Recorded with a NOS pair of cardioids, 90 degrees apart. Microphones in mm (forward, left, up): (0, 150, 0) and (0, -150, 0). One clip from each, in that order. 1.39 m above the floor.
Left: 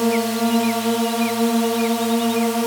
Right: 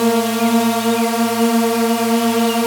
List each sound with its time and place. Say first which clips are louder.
0.0 s a drone: right 4 dB; 20° right